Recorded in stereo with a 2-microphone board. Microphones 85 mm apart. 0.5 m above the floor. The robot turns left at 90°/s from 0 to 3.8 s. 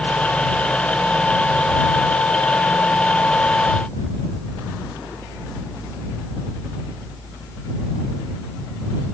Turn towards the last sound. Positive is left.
No sound to turn to.